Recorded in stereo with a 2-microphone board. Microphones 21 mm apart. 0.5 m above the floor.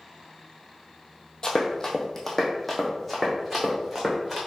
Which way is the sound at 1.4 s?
35° left (ahead or behind).